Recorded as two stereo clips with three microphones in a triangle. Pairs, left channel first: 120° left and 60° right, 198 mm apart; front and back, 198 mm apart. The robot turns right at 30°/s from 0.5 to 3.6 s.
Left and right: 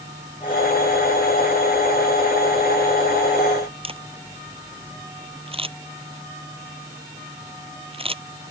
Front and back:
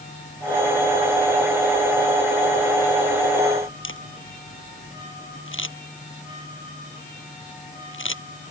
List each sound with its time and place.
3.8 s a camera shutter: straight ahead